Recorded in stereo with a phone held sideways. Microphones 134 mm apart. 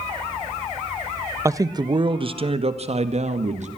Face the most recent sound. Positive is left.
turn(degrees=-55)  # may be behind; listen again after turning